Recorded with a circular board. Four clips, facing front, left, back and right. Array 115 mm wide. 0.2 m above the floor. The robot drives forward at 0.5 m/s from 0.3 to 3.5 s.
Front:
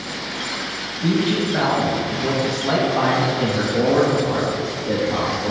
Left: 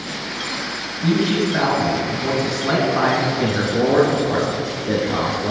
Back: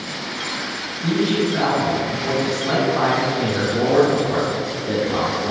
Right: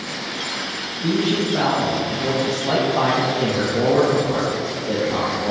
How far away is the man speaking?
About 2 m.